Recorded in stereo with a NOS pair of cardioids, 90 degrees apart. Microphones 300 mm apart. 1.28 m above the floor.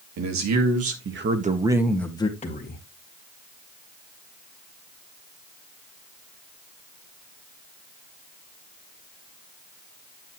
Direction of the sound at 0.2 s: 70° right.